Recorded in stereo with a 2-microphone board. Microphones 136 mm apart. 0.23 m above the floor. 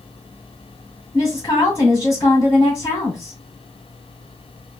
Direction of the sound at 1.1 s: 20° left (ahead or behind).